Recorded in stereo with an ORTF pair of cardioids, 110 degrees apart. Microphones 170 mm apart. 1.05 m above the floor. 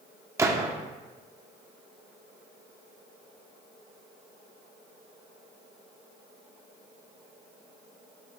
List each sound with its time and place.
0.4 s a gunshot: 15° right, 0.7 m